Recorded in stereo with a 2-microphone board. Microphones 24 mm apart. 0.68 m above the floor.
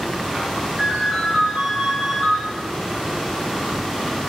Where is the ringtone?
Centre (ahead or behind), 2.5 m.